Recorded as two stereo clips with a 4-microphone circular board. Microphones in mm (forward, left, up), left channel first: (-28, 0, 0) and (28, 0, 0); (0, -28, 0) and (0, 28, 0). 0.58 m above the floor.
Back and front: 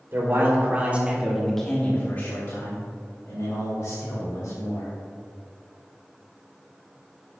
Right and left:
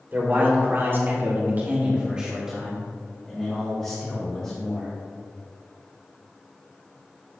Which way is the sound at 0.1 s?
40° left.